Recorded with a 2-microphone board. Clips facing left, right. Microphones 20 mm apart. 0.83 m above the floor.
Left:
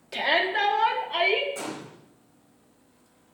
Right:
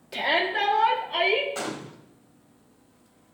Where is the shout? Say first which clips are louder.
Left 1 dB; 5° left (ahead or behind), 1.4 m.